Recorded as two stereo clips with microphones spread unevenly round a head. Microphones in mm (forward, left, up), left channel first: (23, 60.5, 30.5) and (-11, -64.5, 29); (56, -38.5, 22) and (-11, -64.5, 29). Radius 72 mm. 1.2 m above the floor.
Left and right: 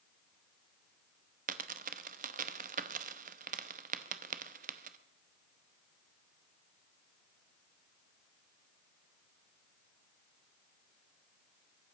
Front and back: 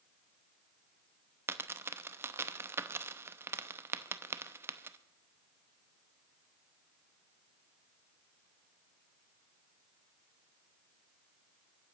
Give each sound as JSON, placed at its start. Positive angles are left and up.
{"t": 1.5, "sound": "a dropped coin", "azimuth_deg": -120, "distance_m": 0.7}